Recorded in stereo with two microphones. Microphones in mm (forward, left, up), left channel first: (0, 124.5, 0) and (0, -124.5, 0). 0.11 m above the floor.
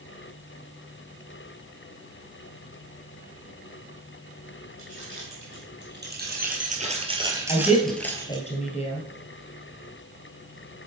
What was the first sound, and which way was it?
Keys jangling, 55° right (ahead or behind).